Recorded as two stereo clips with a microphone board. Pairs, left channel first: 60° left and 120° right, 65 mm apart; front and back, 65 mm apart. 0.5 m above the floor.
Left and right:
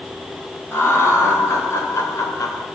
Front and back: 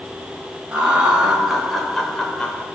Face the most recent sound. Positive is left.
turn(degrees=65)